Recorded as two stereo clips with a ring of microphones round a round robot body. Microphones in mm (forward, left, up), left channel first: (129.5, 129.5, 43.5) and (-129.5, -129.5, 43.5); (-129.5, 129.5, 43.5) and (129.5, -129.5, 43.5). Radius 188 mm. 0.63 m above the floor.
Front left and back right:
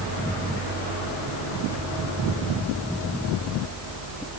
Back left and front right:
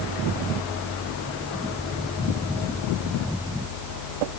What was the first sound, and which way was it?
Only background noise.